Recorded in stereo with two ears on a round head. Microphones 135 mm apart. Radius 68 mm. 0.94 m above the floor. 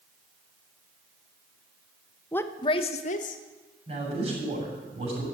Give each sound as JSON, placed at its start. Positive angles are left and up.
{"t": 2.3, "sound": "a woman speaking", "side_deg": 10, "distance_m": 0.8}
{"t": 3.9, "sound": "a man speaking", "side_deg": -45, "distance_m": 7.5}